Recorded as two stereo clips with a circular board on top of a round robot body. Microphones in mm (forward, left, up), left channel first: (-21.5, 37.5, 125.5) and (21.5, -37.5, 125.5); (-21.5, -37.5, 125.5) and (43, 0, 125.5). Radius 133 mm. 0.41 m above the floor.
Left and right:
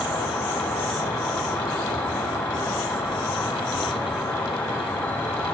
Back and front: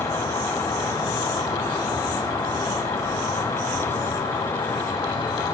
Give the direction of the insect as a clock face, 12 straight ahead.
6 o'clock.